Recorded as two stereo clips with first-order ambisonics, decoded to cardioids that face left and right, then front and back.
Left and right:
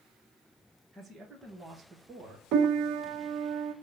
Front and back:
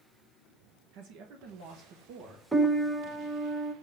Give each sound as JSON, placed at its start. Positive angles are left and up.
{"t": 0.9, "sound": "a man speaking", "azimuth_deg": -170, "distance_m": 1.5}
{"t": 2.5, "sound": "a piano", "azimuth_deg": -100, "distance_m": 0.9}